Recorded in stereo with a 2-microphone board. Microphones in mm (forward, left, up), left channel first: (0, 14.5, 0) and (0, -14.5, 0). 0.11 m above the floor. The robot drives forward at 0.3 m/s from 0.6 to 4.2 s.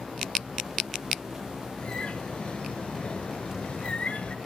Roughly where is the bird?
Left.